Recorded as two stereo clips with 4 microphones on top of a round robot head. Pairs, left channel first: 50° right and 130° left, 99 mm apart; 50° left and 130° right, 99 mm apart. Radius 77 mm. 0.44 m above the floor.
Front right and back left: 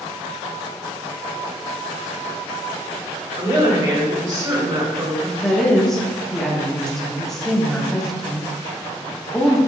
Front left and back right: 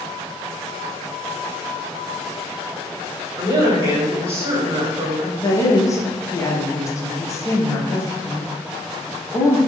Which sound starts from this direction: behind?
A woman speaking, at 3.4 s.